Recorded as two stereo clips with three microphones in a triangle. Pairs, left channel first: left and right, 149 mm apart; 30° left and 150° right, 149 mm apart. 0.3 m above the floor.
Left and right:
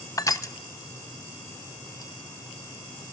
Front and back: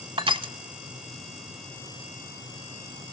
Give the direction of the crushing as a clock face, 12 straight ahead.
7 o'clock.